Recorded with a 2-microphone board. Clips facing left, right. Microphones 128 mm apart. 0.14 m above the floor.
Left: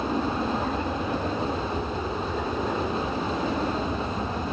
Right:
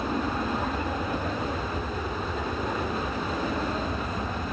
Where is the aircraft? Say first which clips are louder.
Left 2 dB; 10° left (ahead or behind); by 4.5 s 15° left (ahead or behind).